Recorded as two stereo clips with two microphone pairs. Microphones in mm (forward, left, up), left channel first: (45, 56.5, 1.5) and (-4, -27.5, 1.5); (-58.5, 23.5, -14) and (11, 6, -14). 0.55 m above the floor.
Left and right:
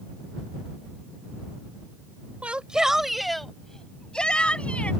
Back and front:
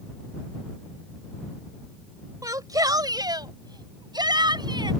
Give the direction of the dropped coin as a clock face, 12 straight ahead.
No dropped coin in this recording.